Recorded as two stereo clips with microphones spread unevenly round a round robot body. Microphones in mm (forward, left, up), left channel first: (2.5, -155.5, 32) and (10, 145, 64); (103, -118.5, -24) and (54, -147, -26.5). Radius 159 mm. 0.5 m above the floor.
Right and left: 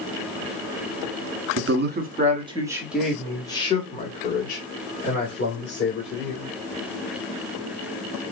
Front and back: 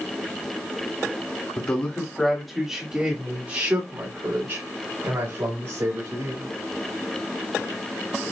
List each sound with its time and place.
1.6 s a man speaking: 70° left, 1.5 m; by 6.5 s 130° right, 3.5 m